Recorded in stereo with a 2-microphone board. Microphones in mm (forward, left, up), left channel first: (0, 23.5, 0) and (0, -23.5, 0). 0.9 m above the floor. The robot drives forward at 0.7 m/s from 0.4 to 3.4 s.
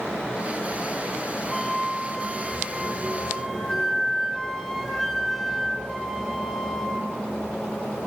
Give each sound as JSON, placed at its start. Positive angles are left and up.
{"t": 1.5, "sound": "a flute", "side_deg": 0, "distance_m": 1.4}